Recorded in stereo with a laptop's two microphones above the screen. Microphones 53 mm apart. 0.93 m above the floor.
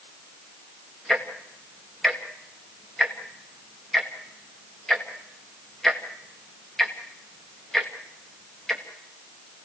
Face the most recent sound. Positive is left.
turn(degrees=10)  # may be behind; listen again after turning